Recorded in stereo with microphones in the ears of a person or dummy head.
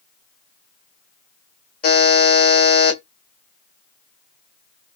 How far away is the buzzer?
About 1.3 m.